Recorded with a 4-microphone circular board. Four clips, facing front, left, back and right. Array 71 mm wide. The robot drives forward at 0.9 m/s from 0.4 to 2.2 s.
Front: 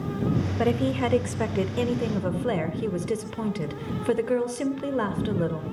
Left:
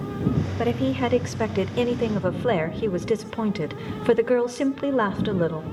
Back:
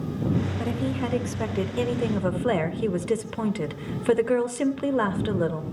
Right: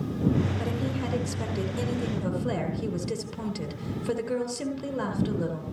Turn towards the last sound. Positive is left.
turn(degrees=115)